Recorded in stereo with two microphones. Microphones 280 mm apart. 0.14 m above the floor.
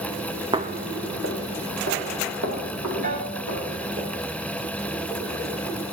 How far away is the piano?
About 1.5 m.